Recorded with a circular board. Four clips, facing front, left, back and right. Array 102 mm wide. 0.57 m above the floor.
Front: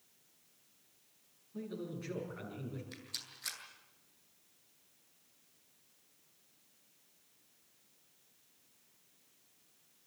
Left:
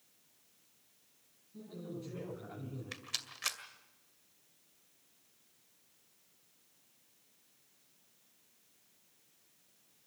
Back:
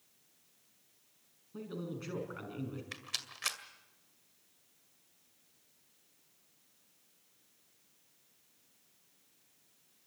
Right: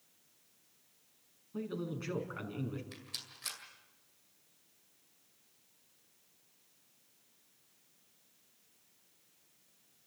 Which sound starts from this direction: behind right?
A man speaking, at 1.5 s.